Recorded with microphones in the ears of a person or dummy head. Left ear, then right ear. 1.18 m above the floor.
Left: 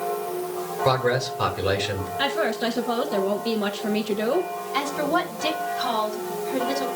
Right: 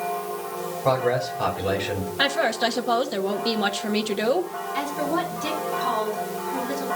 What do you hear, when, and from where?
0.8 s a man speaking: 45° left (ahead or behind), 3.5 m
2.2 s a woman speaking: 25° right (ahead or behind), 1.2 m
4.7 s a woman speaking: 45° left (ahead or behind), 4 m